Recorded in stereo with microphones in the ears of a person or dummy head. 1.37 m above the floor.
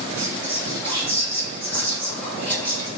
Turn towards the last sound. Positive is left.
turn(degrees=10)  # may be behind; listen again after turning